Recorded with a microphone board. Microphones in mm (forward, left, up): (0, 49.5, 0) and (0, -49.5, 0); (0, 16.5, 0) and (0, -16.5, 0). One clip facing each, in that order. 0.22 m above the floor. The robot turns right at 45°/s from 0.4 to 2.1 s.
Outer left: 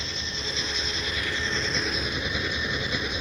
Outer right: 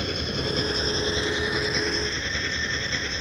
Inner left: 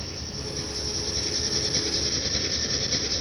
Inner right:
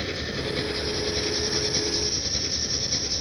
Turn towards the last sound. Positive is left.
turn(degrees=15)